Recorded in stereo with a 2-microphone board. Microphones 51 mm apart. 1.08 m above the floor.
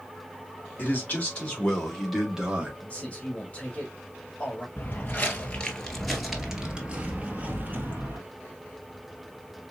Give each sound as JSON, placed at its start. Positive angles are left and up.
{"t": 0.8, "sound": "a man speaking", "side_deg": 35, "distance_m": 2.5}
{"t": 2.8, "sound": "a man speaking", "side_deg": 25, "distance_m": 2.0}
{"t": 4.8, "sound": "footsteps", "side_deg": 40, "distance_m": 1.4}